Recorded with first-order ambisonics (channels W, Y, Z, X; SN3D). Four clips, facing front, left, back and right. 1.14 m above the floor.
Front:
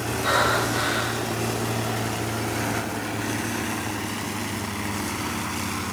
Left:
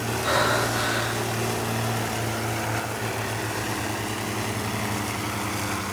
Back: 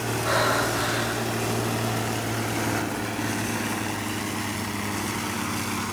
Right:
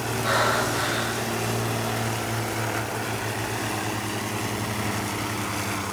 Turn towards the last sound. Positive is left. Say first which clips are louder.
# even, front 2 dB
turn(degrees=15)